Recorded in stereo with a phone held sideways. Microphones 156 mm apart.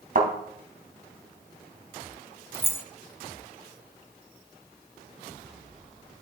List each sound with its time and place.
0.1 s a thud: 60° right (ahead or behind), 2 m
2.5 s keys jangling: 15° left (ahead or behind), 0.6 m